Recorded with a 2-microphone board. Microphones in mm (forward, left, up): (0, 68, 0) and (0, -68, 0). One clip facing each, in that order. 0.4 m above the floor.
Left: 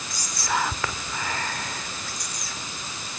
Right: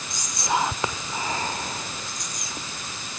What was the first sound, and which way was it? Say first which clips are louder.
Whispering: right 2 dB; 20° right (ahead or behind).